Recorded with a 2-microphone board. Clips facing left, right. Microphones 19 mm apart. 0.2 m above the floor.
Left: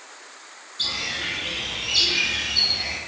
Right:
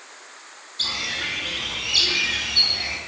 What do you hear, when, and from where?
0.8 s a bird: 20° right (ahead or behind), 0.6 m